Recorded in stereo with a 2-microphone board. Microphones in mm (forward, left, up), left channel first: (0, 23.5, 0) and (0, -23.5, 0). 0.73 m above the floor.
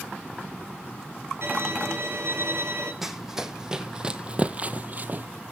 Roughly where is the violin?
Right.